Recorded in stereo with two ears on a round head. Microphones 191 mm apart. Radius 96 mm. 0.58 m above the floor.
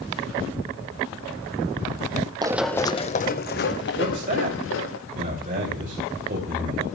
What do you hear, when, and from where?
2.4 s running footsteps: 20° right (ahead or behind), 0.9 m; by 5.0 s 65° left (ahead or behind), 3.5 m
4.0 s a man speaking: 40° right (ahead or behind), 2.5 m